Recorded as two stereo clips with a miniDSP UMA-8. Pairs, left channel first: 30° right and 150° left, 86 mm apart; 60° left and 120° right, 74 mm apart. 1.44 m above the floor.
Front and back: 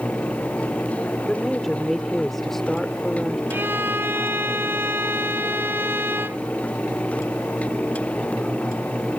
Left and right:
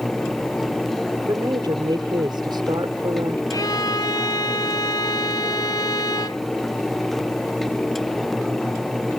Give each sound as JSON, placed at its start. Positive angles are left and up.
{"t": 1.3, "sound": "a woman speaking", "azimuth_deg": -115}
{"t": 3.5, "sound": "a violin", "azimuth_deg": 85}